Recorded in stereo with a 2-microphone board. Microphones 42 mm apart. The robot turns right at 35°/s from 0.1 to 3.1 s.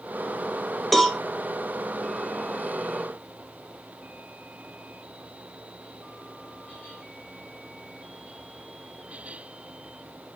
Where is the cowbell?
Centre (ahead or behind), 1.2 m; by 1.2 s 10° left (ahead or behind), 1.2 m.